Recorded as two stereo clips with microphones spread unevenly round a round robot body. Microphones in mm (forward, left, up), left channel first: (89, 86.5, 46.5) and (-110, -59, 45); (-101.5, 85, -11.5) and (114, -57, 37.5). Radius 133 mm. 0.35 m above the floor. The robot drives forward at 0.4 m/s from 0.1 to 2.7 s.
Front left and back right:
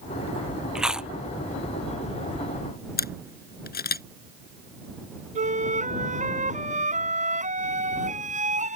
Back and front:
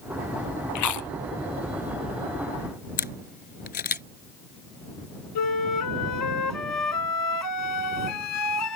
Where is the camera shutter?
90° left.